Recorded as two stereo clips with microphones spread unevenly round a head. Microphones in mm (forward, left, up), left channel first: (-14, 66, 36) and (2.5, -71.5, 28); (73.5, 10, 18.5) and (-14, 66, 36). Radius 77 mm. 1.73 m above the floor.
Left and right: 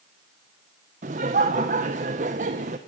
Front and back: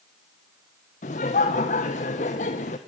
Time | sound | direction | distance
1.0 | laughter | 45° right | 1.1 m